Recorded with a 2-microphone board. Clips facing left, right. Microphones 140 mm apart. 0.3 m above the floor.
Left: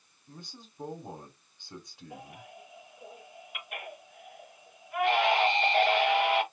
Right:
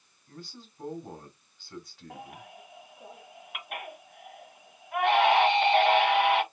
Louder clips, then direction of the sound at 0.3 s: Right 3 dB; 15° left (ahead or behind).